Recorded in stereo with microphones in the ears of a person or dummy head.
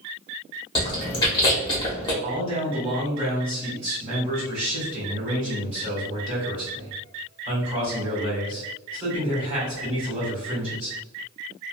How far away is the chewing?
About 0.8 m.